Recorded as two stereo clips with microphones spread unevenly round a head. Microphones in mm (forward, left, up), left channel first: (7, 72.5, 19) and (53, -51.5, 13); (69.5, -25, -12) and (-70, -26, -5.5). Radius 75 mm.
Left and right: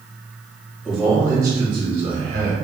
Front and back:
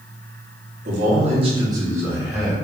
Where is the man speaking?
155° right, 0.9 m; by 2.5 s 90° right, 1.0 m.